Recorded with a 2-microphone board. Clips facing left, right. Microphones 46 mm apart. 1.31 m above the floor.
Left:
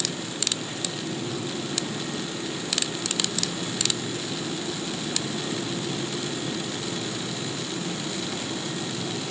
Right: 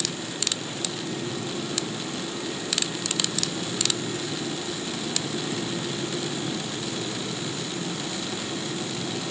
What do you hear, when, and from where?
Only background noise.